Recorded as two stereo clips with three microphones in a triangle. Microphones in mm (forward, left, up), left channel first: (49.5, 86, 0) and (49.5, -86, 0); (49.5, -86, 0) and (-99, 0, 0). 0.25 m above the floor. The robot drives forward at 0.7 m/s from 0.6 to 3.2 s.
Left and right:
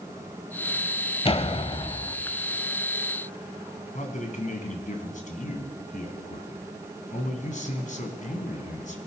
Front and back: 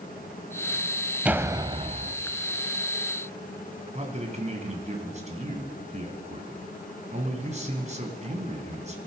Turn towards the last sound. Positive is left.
turn(degrees=115)